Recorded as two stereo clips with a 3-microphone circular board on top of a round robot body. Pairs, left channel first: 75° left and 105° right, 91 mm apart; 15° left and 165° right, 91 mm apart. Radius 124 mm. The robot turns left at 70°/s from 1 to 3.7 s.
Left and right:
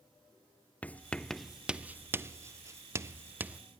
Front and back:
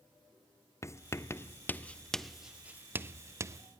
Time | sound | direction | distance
0.8 | writing | 15° left | 0.8 m